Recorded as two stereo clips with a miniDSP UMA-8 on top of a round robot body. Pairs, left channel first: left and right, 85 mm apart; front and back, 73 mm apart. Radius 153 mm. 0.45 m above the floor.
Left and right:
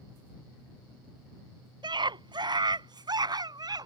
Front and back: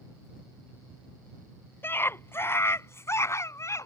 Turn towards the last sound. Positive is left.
turn(degrees=-50)